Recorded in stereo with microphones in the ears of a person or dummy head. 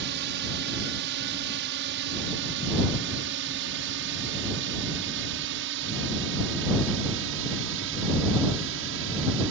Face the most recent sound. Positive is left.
turn(degrees=-65)  # may be behind; listen again after turning